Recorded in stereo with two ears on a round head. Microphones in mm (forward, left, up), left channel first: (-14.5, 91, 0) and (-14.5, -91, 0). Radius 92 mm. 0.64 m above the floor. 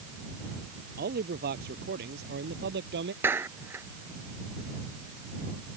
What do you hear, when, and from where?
1.0 s a man speaking: 50° right (ahead or behind); by 3.1 s 60° right (ahead or behind)
3.2 s a clap: 10° right (ahead or behind)